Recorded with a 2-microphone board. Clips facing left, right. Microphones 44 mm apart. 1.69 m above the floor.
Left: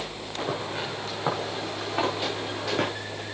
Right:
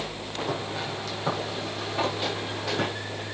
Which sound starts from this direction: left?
Footsteps, at 0.5 s.